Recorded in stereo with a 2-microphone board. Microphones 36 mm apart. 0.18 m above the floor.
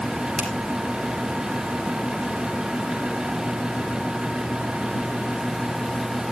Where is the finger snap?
30° right (ahead or behind), 4.5 m.